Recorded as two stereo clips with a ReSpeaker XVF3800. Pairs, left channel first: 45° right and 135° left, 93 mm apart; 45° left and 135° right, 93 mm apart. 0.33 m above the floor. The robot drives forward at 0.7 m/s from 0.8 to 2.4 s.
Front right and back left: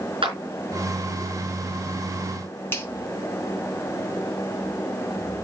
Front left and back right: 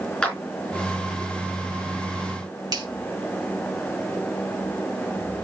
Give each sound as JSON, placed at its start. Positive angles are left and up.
{"t": 0.2, "sound": "a clap", "azimuth_deg": 125, "distance_m": 4.0}
{"t": 2.7, "sound": "a finger snap", "azimuth_deg": -105, "distance_m": 1.7}